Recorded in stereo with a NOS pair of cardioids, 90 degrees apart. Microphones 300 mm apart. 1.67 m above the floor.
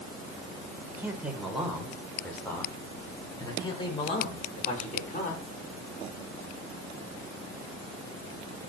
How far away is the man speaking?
About 8.5 m.